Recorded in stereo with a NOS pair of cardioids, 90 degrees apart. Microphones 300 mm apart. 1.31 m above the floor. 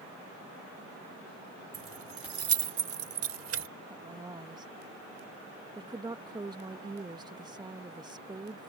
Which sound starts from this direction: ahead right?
Keys jangling, at 1.7 s.